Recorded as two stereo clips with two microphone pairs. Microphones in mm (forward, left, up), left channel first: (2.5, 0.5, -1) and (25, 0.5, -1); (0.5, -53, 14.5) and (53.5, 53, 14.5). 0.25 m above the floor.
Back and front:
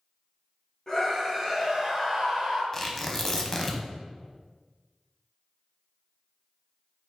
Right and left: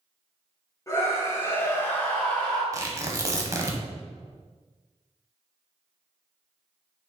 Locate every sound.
0.9 s a scream: 135° right, 1.4 m; by 2.6 s 35° right, 1.6 m
2.7 s tearing paper: 110° left, 0.7 m